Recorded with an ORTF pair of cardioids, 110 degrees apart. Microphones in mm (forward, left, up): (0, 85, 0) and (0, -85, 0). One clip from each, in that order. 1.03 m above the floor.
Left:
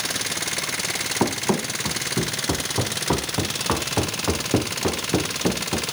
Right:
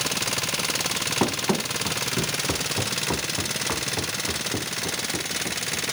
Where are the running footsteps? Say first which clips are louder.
Left 3 dB; 10° left; by 5.8 s 70° left.